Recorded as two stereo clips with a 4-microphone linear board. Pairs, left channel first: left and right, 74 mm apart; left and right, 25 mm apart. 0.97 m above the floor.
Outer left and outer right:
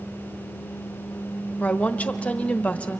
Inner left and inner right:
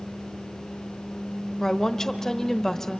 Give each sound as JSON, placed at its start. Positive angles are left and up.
{"t": 1.6, "sound": "a woman speaking", "side_deg": 20, "distance_m": 1.0}